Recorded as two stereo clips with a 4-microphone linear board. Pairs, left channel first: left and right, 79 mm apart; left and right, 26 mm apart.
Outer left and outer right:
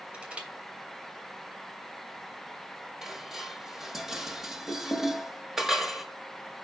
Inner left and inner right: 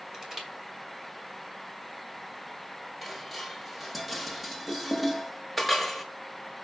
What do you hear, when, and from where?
0.1 s crushing: 15° right (ahead or behind), 2.5 m
3.0 s dishes clattering: 5° right (ahead or behind), 1.2 m